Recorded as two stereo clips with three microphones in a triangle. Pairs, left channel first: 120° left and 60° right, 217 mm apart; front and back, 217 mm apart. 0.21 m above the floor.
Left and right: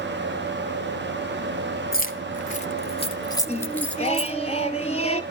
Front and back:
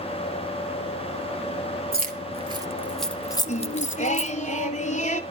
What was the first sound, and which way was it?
Keys jangling, 150° left.